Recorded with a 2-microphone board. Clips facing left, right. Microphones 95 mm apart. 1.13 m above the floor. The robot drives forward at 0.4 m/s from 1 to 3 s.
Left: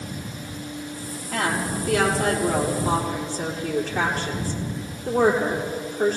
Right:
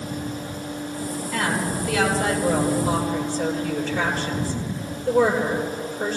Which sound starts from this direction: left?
A woman speaking, at 1.3 s.